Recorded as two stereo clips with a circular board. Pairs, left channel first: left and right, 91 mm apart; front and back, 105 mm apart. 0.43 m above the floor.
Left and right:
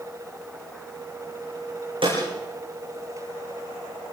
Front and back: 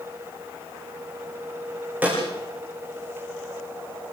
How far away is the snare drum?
About 9 m.